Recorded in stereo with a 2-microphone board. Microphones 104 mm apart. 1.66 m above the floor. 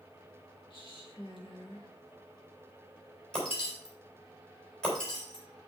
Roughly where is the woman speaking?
Left.